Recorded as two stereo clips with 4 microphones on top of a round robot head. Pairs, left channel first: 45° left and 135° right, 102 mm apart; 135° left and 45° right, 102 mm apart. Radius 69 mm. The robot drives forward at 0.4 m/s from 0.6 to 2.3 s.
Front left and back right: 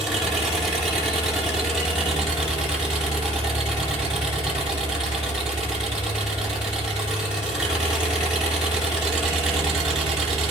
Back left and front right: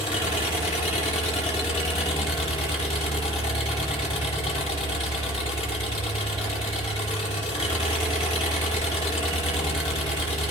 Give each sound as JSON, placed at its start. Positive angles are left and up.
{"t": 0.0, "sound": "an engine running", "azimuth_deg": 135, "distance_m": 8.5}